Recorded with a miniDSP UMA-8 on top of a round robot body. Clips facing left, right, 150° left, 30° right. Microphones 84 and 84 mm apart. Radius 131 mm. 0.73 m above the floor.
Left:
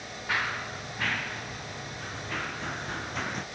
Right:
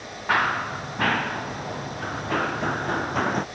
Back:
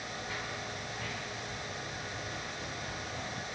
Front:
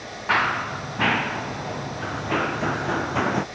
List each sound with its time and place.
0.3 s running footsteps: 50° right; by 3.5 s 45° right